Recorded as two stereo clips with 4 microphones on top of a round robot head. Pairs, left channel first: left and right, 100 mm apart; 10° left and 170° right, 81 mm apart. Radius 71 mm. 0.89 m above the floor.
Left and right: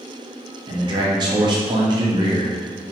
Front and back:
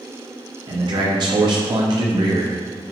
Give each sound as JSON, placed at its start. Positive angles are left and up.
{"t": 0.7, "sound": "a man speaking", "azimuth_deg": -135, "distance_m": 0.9}